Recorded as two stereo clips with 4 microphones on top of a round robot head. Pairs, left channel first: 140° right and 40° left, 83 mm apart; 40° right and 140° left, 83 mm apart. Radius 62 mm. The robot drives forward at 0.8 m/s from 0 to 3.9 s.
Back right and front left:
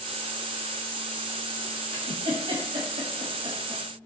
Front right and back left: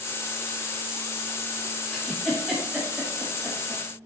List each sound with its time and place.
1.9 s a giggle: 40° left, 3 m; by 3.8 s 70° left, 2 m